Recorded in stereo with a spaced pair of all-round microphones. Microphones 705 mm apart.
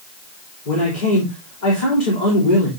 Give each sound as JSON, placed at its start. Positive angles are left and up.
{"t": 0.7, "sound": "a man speaking", "side_deg": 85, "distance_m": 3.5}